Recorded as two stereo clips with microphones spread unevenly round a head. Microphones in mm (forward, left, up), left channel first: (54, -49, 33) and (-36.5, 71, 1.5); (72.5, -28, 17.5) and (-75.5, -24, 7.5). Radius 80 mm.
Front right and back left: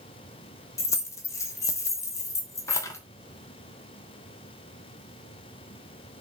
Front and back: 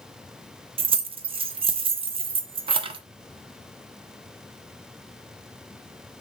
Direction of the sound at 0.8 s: 125° right.